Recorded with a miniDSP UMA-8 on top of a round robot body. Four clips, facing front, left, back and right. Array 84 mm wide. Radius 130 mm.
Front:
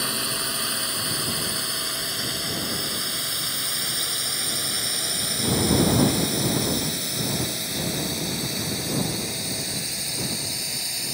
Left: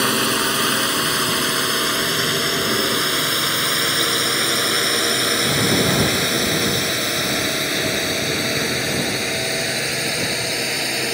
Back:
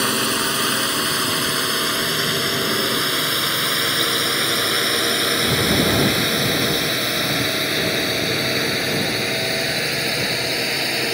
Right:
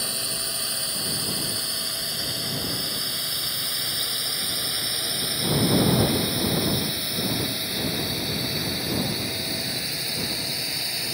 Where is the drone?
120° left; by 11.2 s 140° left.